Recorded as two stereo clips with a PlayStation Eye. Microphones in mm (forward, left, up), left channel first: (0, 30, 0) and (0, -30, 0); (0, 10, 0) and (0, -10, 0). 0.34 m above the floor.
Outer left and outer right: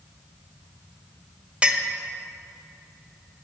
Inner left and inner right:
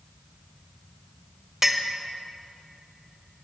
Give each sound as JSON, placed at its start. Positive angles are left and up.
{"t": 1.6, "sound": "a clink", "side_deg": -20, "distance_m": 0.8}